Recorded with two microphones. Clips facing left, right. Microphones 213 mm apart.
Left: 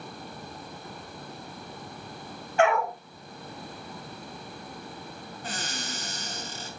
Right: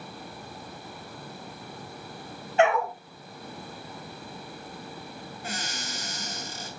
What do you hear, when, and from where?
2.6 s a dog barking: 20° right (ahead or behind), 3.5 m
5.4 s a cupboard door: 10° right (ahead or behind), 5.5 m